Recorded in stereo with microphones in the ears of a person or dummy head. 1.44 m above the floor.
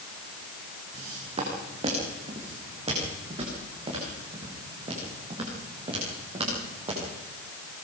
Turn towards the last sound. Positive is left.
turn(degrees=-30)  # may be behind; listen again after turning